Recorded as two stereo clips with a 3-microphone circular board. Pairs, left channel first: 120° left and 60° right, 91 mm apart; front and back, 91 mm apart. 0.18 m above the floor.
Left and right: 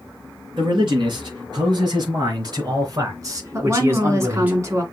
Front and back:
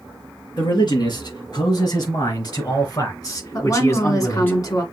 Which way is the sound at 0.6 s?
30° right.